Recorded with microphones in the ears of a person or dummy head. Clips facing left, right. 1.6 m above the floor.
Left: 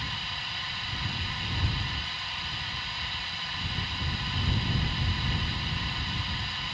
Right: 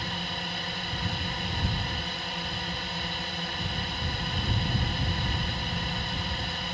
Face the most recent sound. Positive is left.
turn(degrees=-40)  # may be behind; listen again after turning